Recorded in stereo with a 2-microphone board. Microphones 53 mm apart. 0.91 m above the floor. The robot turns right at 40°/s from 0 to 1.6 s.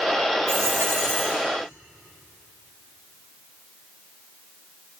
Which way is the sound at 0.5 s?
65° right.